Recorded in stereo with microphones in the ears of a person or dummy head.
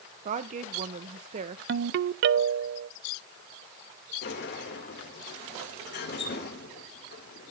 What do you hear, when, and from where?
0.2 s a woman speaking: 35° right (ahead or behind), 0.6 m
1.7 s a ringtone: 60° right (ahead or behind), 0.6 m
4.2 s a sliding door: 55° left (ahead or behind), 2 m